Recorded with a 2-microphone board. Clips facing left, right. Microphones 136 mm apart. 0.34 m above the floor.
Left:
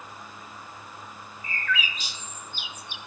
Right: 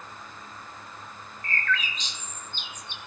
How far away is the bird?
About 0.6 m.